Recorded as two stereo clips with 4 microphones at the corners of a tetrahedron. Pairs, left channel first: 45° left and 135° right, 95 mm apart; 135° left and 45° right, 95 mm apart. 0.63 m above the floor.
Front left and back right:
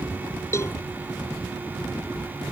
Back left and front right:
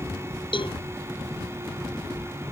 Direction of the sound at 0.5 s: 105° left.